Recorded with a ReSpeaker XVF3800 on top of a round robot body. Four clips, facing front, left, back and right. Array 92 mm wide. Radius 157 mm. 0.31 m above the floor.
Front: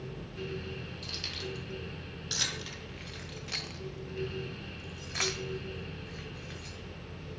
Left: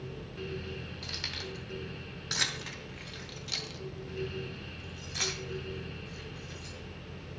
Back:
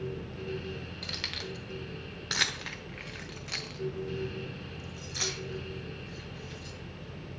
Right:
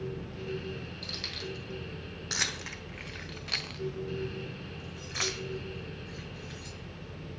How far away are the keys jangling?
About 2.0 m.